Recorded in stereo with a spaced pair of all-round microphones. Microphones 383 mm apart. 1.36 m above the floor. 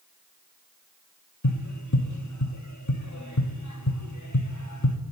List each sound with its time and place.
1.4 s tapping: 45° left (ahead or behind), 1.1 m